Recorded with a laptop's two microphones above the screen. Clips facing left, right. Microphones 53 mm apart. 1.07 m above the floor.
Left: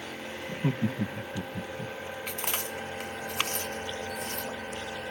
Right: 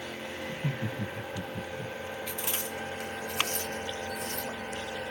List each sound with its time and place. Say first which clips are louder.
0.5 s laughter: left 7 dB; 65° left (ahead or behind), 0.8 m; by 1.9 s 25° left (ahead or behind), 0.9 m
2.3 s chewing: left 1 dB; 50° left (ahead or behind), 1.0 m